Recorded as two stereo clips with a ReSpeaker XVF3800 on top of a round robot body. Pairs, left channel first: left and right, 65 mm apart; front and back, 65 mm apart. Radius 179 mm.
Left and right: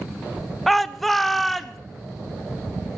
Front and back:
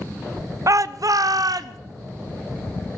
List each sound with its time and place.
0.7 s a shout: 175° left, 0.9 m